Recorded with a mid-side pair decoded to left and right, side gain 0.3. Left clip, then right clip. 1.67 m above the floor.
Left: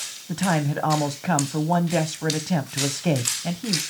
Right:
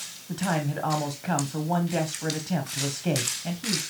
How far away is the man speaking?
About 1.4 m.